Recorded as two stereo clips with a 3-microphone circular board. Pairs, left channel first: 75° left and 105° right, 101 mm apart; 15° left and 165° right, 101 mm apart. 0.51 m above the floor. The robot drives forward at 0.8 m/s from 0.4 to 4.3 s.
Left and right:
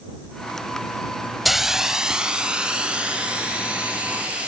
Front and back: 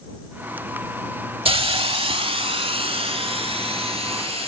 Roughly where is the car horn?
I don't hear a car horn.